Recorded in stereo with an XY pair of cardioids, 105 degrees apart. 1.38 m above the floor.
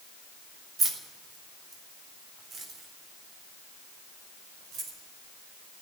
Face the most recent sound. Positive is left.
turn(degrees=-75)